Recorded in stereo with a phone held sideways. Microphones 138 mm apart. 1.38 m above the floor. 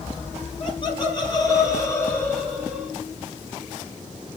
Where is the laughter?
40° left (ahead or behind), 3.5 m; by 2.9 s centre (ahead or behind), 3 m.